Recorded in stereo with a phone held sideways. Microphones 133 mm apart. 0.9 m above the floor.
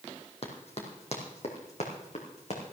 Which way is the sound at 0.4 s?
50° left (ahead or behind).